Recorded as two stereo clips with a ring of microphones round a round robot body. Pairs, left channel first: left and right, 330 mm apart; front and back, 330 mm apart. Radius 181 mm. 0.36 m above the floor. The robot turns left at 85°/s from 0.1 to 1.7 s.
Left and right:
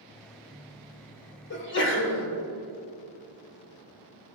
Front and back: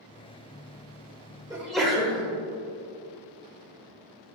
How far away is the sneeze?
About 1.0 m.